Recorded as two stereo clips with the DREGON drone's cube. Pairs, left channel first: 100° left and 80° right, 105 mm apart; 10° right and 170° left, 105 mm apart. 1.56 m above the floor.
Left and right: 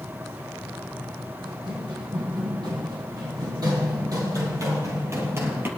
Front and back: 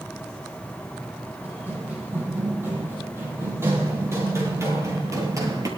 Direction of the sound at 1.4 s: 120° right.